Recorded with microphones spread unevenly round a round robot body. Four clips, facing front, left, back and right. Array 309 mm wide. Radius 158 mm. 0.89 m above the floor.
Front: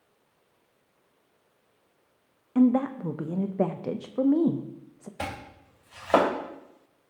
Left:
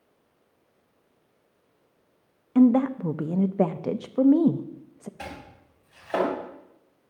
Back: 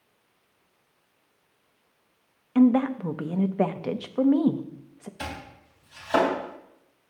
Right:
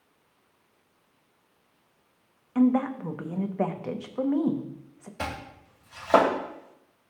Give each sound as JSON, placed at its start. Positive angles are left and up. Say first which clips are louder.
{"t": 2.5, "sound": "a woman speaking", "louder": "left 4 dB, back 2 dB", "azimuth_deg": 90, "distance_m": 0.5}
{"t": 5.2, "sound": "chopping", "louder": "right 9 dB, front 2 dB", "azimuth_deg": -55, "distance_m": 2.5}